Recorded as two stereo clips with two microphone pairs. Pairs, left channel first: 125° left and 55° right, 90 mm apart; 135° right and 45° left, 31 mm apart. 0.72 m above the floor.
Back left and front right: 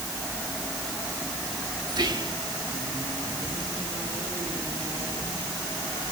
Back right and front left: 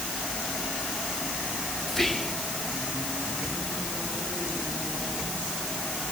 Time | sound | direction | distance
1.9 | whispering | 55° right | 1.8 m